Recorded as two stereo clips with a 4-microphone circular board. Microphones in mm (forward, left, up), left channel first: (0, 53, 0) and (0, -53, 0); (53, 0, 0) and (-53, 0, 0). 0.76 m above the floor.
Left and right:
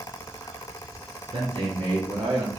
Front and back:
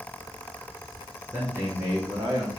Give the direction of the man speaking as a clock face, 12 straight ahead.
4 o'clock.